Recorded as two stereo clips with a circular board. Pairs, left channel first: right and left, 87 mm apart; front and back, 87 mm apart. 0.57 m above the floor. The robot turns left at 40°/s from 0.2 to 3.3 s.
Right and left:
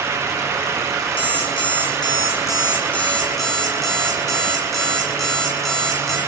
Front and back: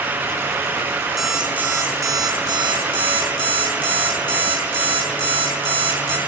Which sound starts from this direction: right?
An alarm clock, at 1.2 s.